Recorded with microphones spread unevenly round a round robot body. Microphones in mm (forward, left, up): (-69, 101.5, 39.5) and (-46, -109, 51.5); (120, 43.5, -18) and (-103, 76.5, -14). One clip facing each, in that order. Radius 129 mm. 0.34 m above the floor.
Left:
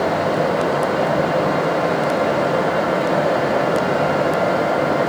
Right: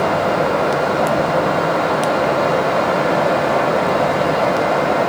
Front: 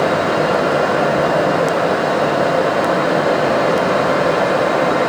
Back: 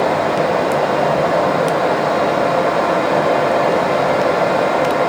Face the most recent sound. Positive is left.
No sound to turn to.